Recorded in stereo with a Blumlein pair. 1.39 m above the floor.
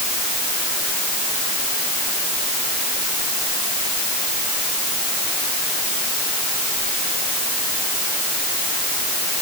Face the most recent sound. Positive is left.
No sound to turn to.